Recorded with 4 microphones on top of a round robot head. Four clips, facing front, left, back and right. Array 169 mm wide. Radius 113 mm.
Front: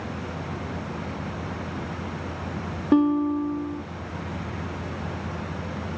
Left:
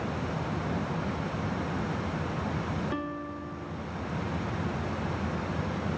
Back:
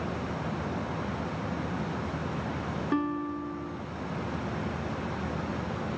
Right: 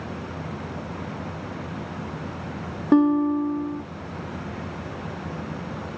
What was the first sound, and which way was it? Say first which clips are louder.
A guitar: right 17 dB, front 11 dB; 60° right.